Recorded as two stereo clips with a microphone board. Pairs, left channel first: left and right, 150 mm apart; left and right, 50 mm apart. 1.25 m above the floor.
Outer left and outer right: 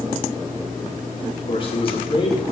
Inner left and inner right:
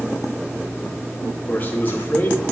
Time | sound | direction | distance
1.5 | a man speaking | 35° left (ahead or behind) | 2.5 m